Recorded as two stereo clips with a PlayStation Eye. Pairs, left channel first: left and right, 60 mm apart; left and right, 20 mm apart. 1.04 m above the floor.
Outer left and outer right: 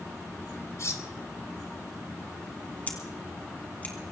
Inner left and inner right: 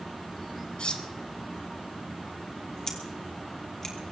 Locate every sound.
0.8 s cutlery clinking: 55° left (ahead or behind), 1.6 m
2.9 s scissors: 25° left (ahead or behind), 3 m